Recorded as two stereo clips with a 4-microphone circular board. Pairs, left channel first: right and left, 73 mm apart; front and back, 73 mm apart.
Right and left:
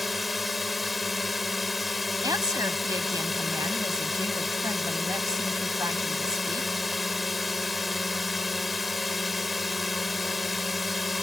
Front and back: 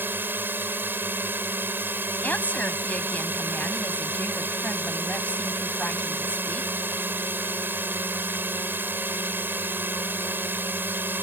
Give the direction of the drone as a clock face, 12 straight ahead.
6 o'clock.